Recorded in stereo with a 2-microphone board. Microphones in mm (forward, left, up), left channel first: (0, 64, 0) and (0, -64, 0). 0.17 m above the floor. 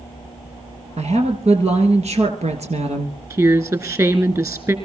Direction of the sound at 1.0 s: 55° right (ahead or behind).